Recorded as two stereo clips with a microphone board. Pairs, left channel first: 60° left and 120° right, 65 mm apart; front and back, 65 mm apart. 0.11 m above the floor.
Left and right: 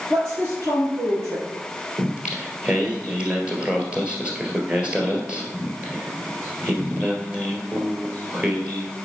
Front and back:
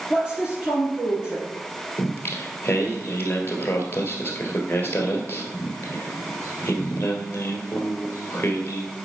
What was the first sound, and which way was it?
A woman speaking, 110° right.